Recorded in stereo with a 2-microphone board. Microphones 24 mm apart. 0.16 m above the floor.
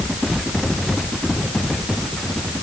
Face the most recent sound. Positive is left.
No sound to turn to.